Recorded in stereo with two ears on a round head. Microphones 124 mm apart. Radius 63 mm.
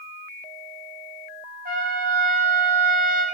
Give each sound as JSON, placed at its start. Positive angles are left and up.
{"t": 1.6, "sound": "a trumpet", "side_deg": -65, "distance_m": 1.9}